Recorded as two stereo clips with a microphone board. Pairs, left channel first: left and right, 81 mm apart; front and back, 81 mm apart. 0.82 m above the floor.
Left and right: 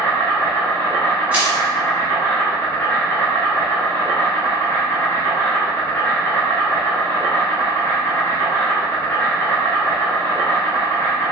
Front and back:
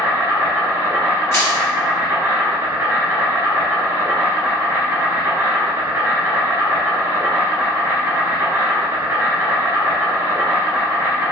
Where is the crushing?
30° right, 1.0 m.